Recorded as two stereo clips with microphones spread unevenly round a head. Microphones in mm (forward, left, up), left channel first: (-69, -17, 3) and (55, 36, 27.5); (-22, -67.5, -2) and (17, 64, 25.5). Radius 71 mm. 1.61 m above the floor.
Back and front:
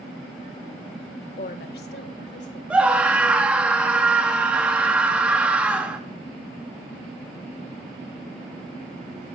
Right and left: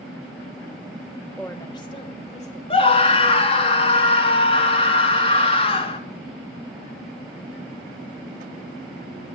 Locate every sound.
1.4 s a woman speaking: 165° left, 0.6 m; by 2.6 s 150° right, 1.4 m
2.7 s a scream: 50° right, 0.7 m